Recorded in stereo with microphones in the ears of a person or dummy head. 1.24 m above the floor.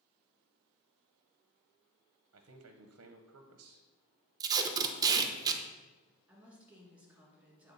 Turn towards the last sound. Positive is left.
turn(degrees=-5)  # may be behind; listen again after turning